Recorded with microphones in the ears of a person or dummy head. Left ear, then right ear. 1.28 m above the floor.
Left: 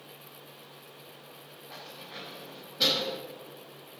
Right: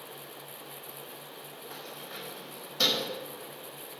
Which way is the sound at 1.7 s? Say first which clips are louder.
Even; 80° right.